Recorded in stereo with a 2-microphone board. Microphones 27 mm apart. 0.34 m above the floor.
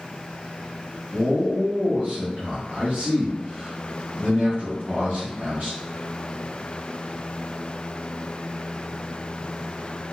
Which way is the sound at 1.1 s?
50° right (ahead or behind).